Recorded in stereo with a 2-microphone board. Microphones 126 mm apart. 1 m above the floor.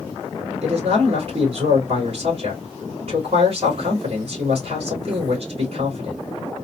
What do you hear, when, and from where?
0.6 s a man speaking: 50° right (ahead or behind), 1.9 m